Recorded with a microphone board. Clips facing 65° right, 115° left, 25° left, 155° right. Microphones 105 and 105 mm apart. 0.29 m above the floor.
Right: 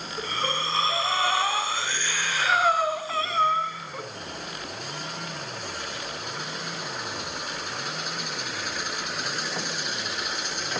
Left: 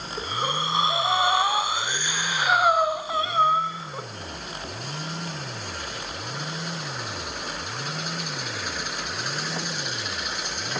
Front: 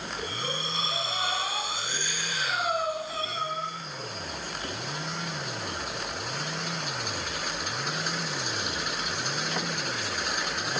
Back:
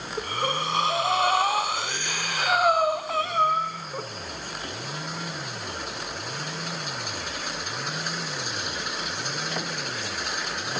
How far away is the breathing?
About 1.1 m.